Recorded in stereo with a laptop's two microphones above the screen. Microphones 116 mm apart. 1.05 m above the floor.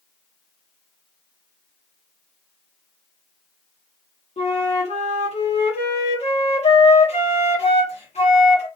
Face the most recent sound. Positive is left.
turn(degrees=70)  # may be behind; listen again after turning